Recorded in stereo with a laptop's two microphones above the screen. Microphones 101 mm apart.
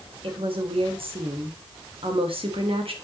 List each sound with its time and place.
0.2 s a woman speaking: 65° right (ahead or behind), 1.3 m